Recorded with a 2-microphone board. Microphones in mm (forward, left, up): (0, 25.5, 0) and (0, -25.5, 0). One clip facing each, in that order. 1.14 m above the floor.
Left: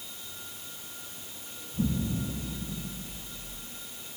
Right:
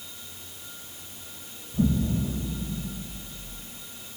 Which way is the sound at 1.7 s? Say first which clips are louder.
Right 5 dB; 50° right (ahead or behind).